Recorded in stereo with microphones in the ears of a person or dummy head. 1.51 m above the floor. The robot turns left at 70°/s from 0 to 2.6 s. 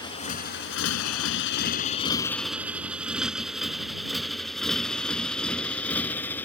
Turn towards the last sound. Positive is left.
turn(degrees=10)  # may be behind; listen again after turning